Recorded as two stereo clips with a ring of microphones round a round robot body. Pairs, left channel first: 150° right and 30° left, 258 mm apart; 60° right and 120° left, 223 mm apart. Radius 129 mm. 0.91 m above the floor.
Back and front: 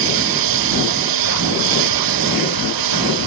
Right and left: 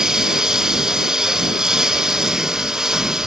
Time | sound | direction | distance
0.0 | a lawn mower | 30° left | ?